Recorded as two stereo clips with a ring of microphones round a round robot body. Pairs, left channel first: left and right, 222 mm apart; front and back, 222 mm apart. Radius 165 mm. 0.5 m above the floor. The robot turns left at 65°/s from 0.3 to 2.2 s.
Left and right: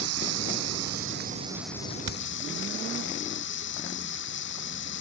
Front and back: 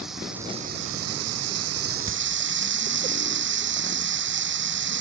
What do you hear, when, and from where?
0.0 s running water: 90° right; by 5.0 s 145° left
2.1 s hammering: 100° right; by 2.2 s 110° right